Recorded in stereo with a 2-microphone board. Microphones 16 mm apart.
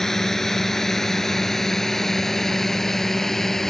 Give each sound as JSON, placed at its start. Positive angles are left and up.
{"t": 0.0, "sound": "a drone", "side_deg": 30}